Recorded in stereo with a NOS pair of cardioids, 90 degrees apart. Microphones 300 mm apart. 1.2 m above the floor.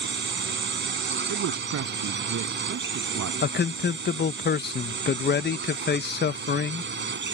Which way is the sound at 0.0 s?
35° right.